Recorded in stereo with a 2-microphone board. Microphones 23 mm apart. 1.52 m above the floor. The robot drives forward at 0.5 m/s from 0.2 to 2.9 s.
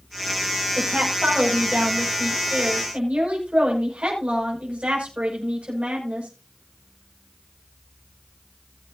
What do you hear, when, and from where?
0.8 s a woman speaking: 80° right, 6.5 m; by 6.3 s 70° right (ahead or behind), 6.5 m